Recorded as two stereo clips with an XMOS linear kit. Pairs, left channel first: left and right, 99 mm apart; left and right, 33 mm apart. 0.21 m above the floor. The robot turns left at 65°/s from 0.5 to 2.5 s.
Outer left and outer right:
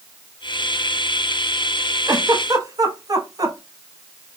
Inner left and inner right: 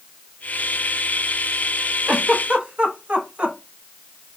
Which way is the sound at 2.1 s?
30° right (ahead or behind).